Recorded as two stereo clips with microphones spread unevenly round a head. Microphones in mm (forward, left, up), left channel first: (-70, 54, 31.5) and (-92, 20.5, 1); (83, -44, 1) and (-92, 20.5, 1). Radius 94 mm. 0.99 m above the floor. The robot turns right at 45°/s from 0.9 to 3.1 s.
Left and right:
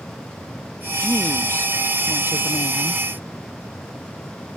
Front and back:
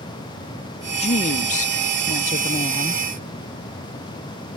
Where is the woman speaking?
50° right; by 3.0 s 40° left.